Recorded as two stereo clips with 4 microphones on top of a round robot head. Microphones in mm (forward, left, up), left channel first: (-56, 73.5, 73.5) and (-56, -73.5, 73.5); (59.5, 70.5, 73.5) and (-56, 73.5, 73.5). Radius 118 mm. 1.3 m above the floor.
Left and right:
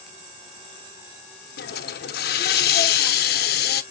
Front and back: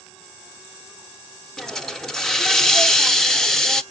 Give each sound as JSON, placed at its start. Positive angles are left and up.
{"t": 1.6, "sound": "a hiss", "azimuth_deg": 85, "distance_m": 0.6}